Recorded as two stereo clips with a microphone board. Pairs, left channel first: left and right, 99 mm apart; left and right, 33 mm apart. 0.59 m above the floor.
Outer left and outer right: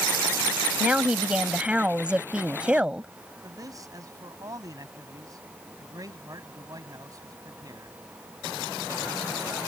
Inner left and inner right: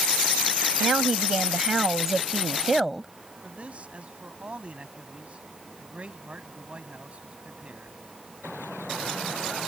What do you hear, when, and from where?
0.8 s a woman speaking: 10° right (ahead or behind)
3.4 s a man speaking: 40° right (ahead or behind)